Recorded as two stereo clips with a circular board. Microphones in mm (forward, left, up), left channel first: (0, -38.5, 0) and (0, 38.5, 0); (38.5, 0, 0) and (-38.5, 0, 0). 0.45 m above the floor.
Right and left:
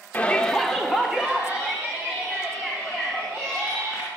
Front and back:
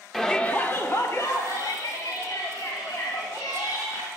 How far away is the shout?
About 0.9 m.